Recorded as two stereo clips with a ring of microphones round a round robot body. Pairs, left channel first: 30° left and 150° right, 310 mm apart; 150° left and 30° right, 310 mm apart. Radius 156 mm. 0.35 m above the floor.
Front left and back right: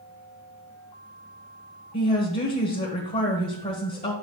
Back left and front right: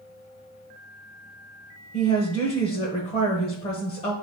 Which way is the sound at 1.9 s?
85° left.